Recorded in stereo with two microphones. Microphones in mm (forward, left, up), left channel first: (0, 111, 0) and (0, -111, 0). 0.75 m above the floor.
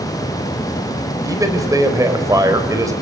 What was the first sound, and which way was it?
A man speaking, 15° right (ahead or behind).